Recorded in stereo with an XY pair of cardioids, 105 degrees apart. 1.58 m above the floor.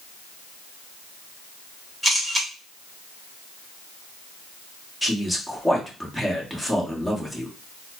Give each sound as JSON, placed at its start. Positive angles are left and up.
{"t": 2.0, "sound": "a camera shutter", "azimuth_deg": -10, "distance_m": 1.8}
{"t": 5.0, "sound": "a man speaking", "azimuth_deg": 5, "distance_m": 1.3}